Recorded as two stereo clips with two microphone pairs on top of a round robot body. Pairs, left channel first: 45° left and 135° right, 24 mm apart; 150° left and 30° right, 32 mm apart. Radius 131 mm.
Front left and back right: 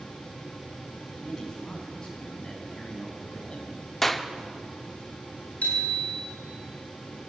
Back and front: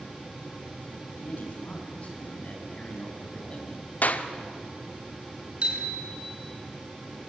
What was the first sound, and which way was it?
A man speaking, 110° left.